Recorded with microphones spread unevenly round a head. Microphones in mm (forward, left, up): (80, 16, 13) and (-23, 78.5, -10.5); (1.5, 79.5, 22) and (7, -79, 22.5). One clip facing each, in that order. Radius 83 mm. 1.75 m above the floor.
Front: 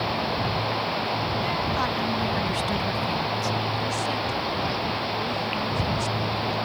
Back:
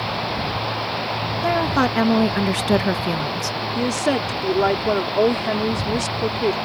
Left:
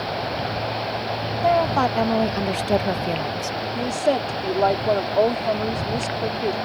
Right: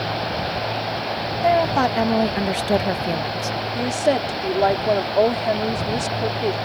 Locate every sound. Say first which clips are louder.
1.4 s a woman speaking: back 7 dB, right 1 dB; 175° right; by 3.6 s straight behind
3.8 s a woman speaking: back 7 dB, right 1 dB; 175° right